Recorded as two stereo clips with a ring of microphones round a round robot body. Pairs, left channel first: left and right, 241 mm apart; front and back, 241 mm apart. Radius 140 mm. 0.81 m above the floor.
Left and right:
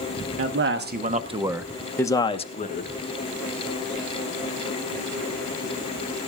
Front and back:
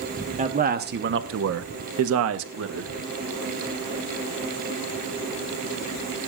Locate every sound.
0.4 s a man speaking: 120° right, 1.5 m; by 2.9 s 145° left, 1.8 m